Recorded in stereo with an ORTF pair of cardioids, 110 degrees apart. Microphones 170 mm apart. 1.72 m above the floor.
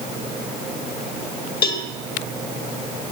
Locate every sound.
1.6 s a cowbell: 65° left, 1.5 m